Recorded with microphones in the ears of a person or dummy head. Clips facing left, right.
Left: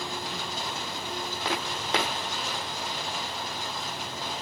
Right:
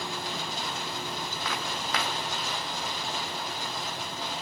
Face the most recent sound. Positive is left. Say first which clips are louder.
# left 4 dB
turn(degrees=30)  # may be behind; listen again after turning